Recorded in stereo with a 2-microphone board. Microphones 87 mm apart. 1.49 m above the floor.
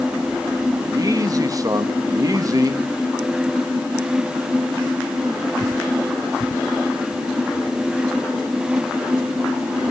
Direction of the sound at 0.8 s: 45° right (ahead or behind).